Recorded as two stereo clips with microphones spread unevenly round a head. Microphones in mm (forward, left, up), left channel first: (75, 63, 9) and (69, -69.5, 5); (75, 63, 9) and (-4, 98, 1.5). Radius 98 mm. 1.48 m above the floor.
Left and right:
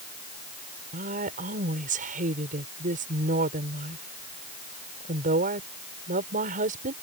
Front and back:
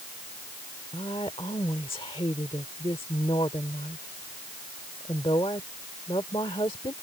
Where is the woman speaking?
85° right.